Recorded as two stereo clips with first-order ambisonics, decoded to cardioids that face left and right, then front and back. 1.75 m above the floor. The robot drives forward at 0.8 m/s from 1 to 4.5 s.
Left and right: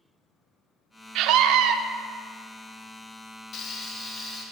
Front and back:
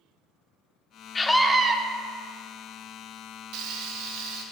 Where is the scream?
70° right, 0.6 m; by 1.8 s 125° right, 0.6 m.